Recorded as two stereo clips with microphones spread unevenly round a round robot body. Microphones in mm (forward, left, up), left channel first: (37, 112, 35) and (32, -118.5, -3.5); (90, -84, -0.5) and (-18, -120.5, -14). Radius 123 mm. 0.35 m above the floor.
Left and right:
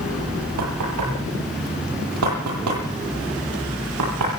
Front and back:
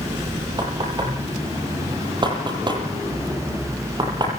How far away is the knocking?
About 9 m.